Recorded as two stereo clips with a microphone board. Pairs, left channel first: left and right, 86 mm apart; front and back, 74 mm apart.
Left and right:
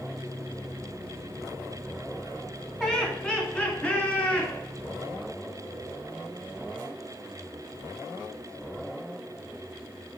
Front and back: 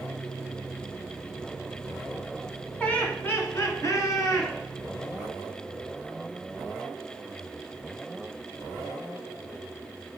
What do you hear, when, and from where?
2.8 s laughter: 20° left, 1.2 m; by 4.5 s 15° left, 2 m